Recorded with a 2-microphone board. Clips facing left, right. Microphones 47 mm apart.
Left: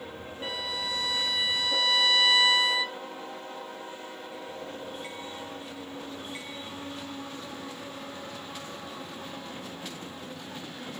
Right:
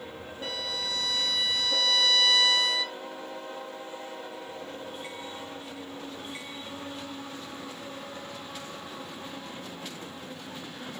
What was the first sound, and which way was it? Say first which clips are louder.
A violin: left 1 dB; 20° left (ahead or behind).